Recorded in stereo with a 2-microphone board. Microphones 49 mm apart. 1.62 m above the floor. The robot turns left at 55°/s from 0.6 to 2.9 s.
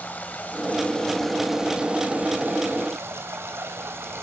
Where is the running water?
45° left, 2.5 m; by 4.2 s 85° right, 2.5 m.